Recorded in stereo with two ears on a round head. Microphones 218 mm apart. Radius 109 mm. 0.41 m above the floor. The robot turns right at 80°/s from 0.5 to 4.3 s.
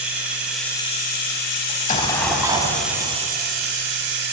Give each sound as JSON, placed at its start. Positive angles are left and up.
{"t": 0.0, "sound": "running water", "azimuth_deg": -5, "distance_m": 1.7}
{"t": 1.7, "sound": "an explosion", "azimuth_deg": 130, "distance_m": 0.8}